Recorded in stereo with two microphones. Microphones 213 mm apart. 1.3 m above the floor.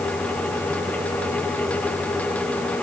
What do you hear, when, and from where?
Only background noise.